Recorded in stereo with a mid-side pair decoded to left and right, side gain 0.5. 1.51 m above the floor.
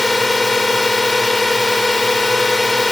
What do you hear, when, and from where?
0.0 s a drone: 10° left